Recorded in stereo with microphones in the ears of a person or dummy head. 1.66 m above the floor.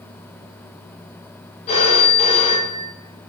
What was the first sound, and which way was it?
A phone ringing, 30° left (ahead or behind).